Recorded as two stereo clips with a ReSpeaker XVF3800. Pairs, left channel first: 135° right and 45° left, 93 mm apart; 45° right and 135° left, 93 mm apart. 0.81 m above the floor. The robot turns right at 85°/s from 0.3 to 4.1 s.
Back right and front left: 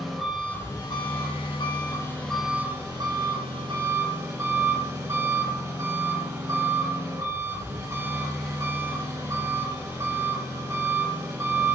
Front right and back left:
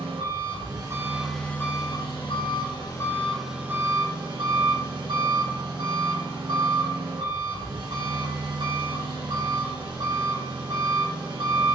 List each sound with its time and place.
0.0 s an engine running: 140° left, 3 m; by 11.8 s 100° left, 3 m